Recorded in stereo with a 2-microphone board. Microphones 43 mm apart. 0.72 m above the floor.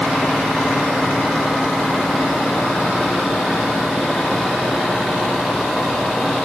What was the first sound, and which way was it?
Only background noise.